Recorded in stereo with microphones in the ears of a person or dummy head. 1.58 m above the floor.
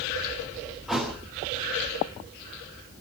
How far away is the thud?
About 2.5 m.